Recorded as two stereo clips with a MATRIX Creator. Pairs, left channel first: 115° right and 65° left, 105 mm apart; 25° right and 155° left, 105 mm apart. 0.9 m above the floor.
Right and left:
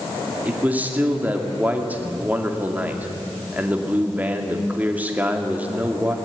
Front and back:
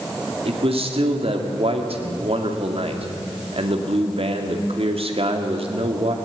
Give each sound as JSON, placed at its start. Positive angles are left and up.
{"t": 0.5, "sound": "a man speaking", "azimuth_deg": 140, "distance_m": 2.5}